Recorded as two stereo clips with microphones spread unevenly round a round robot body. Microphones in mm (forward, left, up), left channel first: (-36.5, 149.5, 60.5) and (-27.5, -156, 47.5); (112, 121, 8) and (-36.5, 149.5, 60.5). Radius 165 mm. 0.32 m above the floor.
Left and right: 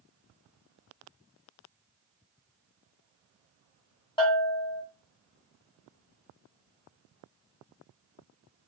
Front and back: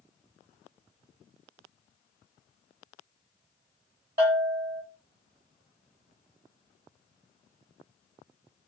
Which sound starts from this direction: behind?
A bell, at 4.2 s.